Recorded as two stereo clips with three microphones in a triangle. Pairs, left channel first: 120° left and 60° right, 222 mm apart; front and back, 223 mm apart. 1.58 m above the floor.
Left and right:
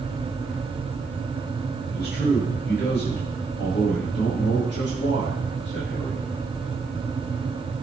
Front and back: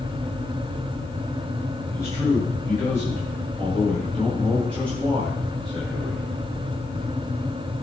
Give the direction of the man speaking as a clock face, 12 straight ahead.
9 o'clock.